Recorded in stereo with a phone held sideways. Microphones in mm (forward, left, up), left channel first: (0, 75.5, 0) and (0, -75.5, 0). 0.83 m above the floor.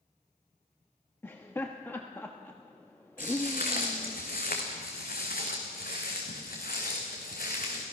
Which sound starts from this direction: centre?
Laughter, at 1.2 s.